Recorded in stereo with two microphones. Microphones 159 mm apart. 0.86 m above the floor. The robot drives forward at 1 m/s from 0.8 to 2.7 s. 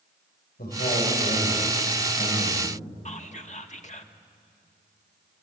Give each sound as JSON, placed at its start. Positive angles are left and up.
{"t": 0.6, "sound": "a man speaking", "side_deg": 75, "distance_m": 5.0}
{"t": 3.0, "sound": "whispering", "side_deg": 45, "distance_m": 1.1}